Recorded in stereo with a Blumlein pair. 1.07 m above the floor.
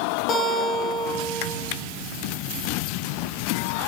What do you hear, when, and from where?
0.3 s a guitar: 30° left, 3.5 m